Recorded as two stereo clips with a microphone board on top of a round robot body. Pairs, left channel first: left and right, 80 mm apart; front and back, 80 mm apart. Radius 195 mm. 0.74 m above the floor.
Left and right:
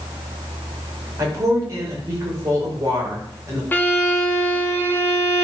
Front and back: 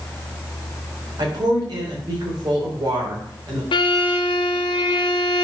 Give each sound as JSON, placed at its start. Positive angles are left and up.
{"t": 1.2, "sound": "a woman speaking", "azimuth_deg": -145, "distance_m": 4.5}
{"t": 3.7, "sound": "a violin", "azimuth_deg": 20, "distance_m": 1.0}